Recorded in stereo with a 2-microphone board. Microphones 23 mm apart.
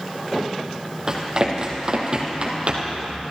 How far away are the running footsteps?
About 3 m.